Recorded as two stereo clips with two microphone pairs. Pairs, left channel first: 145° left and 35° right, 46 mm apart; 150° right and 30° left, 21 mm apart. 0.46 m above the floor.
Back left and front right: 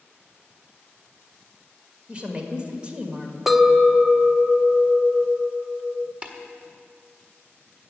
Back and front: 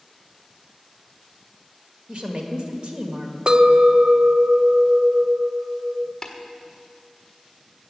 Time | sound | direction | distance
2.1 | a woman speaking | 25° left | 1.6 m
3.5 | a clink | 50° left | 0.6 m
6.2 | tapping | 75° right | 1.5 m